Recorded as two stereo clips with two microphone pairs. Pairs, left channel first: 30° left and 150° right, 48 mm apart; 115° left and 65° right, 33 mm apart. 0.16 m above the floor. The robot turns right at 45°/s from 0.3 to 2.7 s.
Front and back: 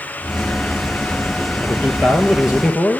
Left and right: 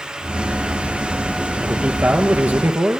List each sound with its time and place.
1.6 s a man speaking: 110° right, 3 m; by 3.0 s 60° right, 3 m